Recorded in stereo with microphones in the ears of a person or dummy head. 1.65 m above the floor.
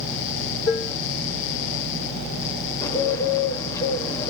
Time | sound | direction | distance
0.7 | dishes clattering | 15° left (ahead or behind) | 2.5 m
2.8 | a bird | 25° left (ahead or behind) | 1.0 m